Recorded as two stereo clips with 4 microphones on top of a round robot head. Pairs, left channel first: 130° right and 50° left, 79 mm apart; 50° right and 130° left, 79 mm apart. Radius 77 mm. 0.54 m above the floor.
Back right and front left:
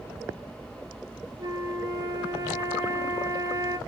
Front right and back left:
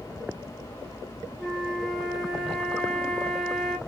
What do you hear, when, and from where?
1.4 s a flute: 40° left, 1.0 m